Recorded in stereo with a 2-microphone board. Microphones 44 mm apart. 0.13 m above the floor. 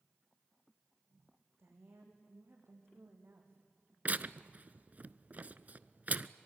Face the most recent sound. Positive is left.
turn(degrees=-35)  # may be behind; listen again after turning